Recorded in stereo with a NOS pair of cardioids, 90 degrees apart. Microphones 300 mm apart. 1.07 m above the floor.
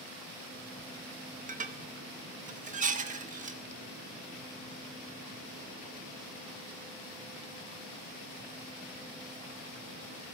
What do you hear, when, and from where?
1.5 s dishes clattering: 25° right, 0.8 m